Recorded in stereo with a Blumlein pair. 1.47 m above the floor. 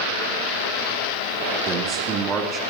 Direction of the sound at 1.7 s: 20° right.